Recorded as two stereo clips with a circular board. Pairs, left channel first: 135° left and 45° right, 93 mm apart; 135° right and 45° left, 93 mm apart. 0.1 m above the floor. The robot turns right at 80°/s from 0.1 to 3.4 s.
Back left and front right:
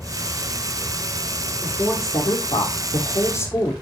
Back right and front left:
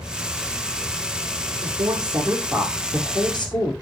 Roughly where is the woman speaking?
Ahead left.